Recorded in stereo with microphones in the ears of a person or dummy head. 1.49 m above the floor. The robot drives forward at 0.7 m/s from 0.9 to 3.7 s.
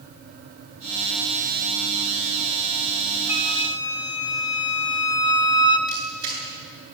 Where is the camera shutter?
30° right (ahead or behind), 8.5 m.